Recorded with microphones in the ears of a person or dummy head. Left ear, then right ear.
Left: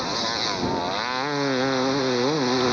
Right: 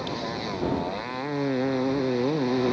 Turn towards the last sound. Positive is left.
turn(degrees=45)  # may be behind; listen again after turning